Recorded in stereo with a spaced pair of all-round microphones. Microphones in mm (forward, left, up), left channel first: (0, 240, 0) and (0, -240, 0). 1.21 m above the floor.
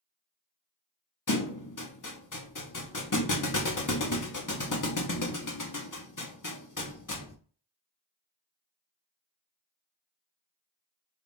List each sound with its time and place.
1.3 s a thud: 40° left (ahead or behind), 0.7 m